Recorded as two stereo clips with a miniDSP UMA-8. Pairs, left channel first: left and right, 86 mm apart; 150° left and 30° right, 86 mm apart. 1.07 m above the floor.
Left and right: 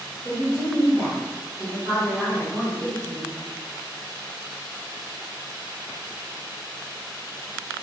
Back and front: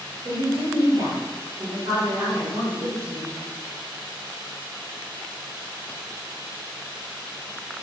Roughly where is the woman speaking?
Ahead right.